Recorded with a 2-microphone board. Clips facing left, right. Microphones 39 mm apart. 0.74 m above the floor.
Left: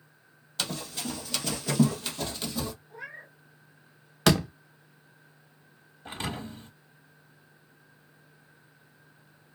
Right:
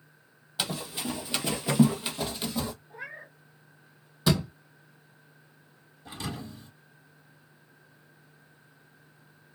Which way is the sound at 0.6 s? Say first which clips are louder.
Right 1 dB; 10° right (ahead or behind).